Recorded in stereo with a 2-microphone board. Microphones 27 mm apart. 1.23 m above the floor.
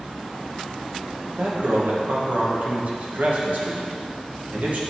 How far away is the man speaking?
About 1.4 m.